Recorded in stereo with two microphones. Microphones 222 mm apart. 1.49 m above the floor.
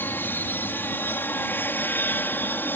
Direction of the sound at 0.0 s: 10° left (ahead or behind).